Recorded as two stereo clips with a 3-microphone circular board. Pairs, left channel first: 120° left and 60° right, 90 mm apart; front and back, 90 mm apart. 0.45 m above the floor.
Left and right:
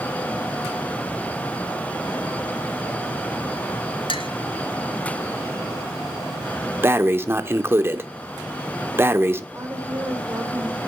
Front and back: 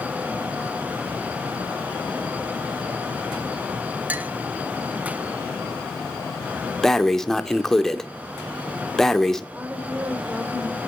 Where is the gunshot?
No gunshot in this recording.